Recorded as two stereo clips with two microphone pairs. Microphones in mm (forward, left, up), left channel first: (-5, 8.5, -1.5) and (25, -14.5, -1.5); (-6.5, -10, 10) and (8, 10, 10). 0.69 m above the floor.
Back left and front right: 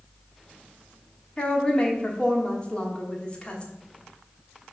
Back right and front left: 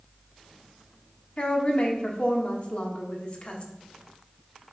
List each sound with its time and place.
1.4 s a woman speaking: 155° right, 1.4 m